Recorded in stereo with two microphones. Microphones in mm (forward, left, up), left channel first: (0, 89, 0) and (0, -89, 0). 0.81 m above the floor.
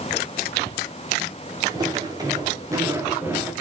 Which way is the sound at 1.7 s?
25° right (ahead or behind).